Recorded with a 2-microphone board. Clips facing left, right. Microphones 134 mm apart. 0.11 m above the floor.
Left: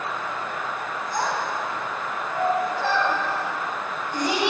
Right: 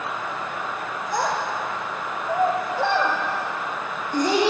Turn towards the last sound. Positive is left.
turn(degrees=-35)  # may be behind; listen again after turning